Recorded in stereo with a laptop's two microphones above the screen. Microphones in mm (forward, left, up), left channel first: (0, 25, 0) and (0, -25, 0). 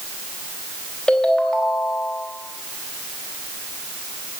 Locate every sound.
1.1 s a ringtone: 15° left (ahead or behind), 3 m